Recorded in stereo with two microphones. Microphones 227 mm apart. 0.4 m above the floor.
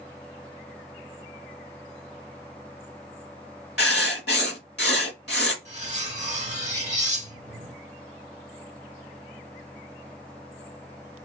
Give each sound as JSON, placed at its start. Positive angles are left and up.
{"t": 3.8, "sound": "writing", "side_deg": 50, "distance_m": 0.8}
{"t": 5.7, "sound": "cutlery clinking", "side_deg": -30, "distance_m": 0.9}